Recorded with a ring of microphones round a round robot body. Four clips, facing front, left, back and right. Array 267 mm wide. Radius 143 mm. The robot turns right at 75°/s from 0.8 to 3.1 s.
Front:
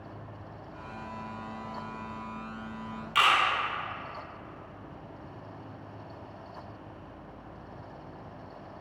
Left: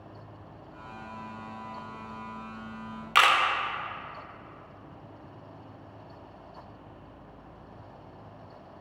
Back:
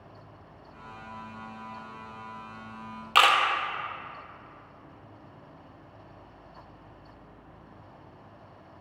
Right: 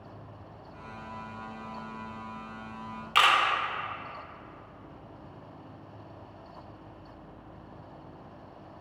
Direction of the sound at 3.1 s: 155° left.